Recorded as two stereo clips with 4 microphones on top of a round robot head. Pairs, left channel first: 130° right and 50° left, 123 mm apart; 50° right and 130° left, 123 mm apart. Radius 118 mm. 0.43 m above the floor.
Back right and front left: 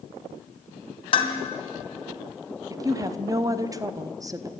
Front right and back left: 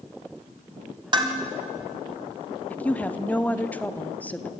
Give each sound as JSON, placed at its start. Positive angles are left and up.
{"t": 1.1, "sound": "dishes clattering", "azimuth_deg": -175, "distance_m": 2.5}
{"t": 2.7, "sound": "a woman speaking", "azimuth_deg": 20, "distance_m": 1.2}